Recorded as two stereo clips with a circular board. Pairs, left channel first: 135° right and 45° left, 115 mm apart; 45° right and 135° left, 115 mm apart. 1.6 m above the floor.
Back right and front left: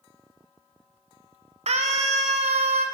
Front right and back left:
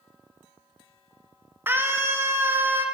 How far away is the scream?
About 3.5 m.